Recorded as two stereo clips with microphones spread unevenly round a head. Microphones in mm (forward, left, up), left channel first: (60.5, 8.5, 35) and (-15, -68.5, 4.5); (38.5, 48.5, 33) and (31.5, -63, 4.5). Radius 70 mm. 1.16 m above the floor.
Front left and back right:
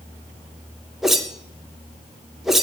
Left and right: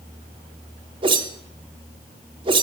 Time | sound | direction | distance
1.0 | a whoosh | 45° right | 0.6 m